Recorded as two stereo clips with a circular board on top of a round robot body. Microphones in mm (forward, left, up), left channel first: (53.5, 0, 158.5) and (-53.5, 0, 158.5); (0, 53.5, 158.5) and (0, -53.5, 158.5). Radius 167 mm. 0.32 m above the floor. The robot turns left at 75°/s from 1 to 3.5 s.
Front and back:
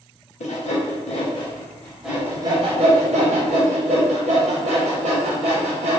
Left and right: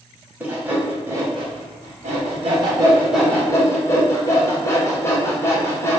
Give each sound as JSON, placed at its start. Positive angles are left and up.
{"t": 0.4, "sound": "sawing", "azimuth_deg": -15, "distance_m": 0.6}